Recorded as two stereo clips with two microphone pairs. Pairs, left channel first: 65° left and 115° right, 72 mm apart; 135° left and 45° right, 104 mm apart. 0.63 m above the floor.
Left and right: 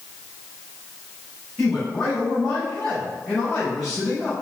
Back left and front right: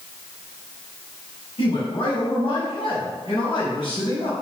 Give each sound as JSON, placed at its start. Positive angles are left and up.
{"t": 1.6, "sound": "a man speaking", "azimuth_deg": 145, "distance_m": 3.5}